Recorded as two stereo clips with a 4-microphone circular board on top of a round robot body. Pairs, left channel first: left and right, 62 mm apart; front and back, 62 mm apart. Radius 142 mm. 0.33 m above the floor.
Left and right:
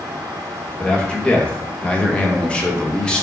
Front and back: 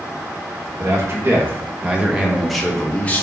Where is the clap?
No clap in this recording.